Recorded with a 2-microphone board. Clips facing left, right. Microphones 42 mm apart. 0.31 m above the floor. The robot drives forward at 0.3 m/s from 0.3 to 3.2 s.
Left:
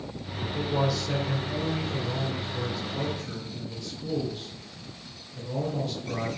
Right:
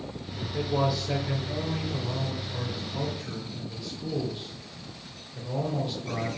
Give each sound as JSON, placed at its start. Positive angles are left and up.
{"t": 0.4, "sound": "a man speaking", "side_deg": -10, "distance_m": 1.3}